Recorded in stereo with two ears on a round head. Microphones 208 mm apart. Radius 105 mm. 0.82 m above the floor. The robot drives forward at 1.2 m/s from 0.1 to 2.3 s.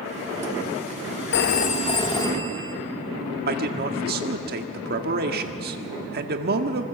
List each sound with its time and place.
1.3 s a phone ringing: 50° left (ahead or behind), 0.6 m; by 2.8 s 20° left (ahead or behind), 1.5 m
3.5 s a man speaking: 40° right (ahead or behind), 1.5 m